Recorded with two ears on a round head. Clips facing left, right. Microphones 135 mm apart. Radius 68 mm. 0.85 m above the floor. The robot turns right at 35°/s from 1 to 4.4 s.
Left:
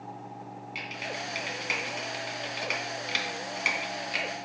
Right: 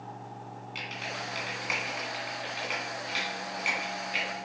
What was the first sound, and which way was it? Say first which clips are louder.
Typing on a keyboard: left 1 dB; 10° left (ahead or behind).